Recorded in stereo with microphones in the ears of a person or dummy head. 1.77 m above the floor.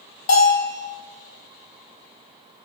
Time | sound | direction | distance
0.3 | a bell | 50° left (ahead or behind) | 0.9 m